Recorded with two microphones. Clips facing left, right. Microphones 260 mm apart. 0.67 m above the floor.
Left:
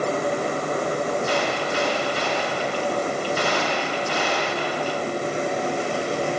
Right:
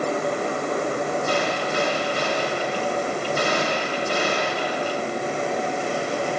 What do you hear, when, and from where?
1.3 s a gunshot: 50° right (ahead or behind), 4 m